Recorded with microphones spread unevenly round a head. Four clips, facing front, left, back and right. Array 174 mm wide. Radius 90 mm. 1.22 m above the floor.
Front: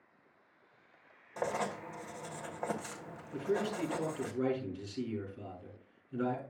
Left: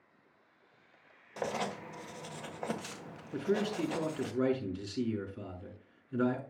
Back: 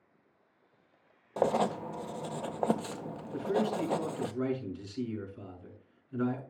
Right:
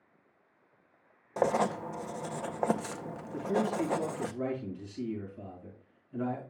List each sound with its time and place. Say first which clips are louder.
1.4 s writing: right 8 dB, back 7 dB; 110° right, 0.6 m
3.3 s a man speaking: right 2 dB, back 3 dB; 105° left, 5.5 m